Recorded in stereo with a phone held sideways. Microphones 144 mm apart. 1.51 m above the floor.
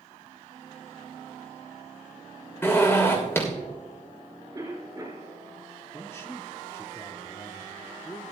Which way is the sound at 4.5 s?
25° right (ahead or behind).